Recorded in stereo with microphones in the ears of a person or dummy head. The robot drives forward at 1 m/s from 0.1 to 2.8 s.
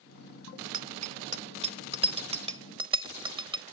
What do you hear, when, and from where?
0.7 s a bicycle bell: 40° right (ahead or behind); by 3.6 s 25° right (ahead or behind)